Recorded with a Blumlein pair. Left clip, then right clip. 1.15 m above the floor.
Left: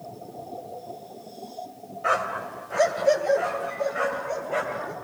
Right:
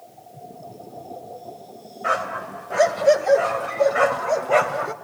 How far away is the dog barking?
About 2 m.